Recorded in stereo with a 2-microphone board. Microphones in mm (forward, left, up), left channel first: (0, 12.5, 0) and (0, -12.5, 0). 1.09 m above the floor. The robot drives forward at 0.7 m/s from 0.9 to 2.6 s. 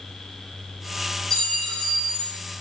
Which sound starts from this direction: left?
A clink, at 1.3 s.